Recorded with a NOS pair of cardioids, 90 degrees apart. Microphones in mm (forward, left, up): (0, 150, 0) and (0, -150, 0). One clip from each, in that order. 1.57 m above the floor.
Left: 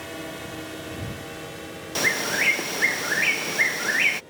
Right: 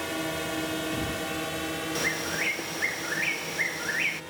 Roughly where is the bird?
Ahead left.